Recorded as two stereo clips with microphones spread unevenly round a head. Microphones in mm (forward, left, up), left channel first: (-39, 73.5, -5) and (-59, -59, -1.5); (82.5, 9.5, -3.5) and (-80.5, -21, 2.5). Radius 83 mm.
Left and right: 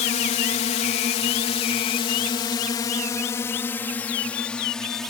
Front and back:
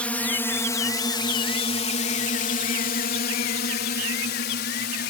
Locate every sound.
0.0 s a drone: 90° left; by 5.1 s 5° right